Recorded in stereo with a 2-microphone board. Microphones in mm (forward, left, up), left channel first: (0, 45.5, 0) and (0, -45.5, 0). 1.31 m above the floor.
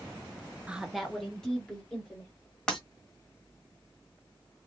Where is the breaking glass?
10° left (ahead or behind), 1.6 m.